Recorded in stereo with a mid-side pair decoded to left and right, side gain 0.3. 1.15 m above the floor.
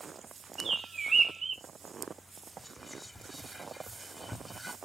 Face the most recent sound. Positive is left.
turn(degrees=10)